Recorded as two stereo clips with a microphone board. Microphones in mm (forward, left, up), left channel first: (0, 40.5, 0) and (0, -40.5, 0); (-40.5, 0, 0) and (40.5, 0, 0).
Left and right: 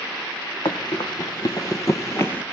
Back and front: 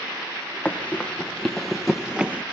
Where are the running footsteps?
105° left, 1.9 m; by 2.4 s 45° left, 1.0 m.